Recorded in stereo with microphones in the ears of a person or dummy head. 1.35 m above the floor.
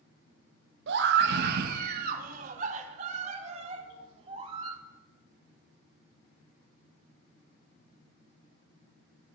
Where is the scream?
75° right (ahead or behind), 1.2 m; by 4.8 s 35° right (ahead or behind), 3 m.